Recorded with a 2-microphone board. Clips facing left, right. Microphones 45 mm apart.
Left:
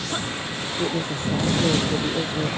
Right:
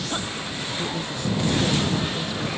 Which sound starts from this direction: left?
A woman speaking, at 0.8 s.